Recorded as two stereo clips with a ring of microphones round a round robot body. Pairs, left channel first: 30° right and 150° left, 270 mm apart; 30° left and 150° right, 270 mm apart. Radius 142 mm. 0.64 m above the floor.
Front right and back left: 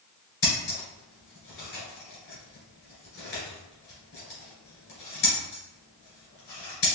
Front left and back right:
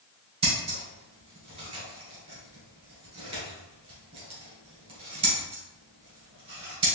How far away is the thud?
No thud in this recording.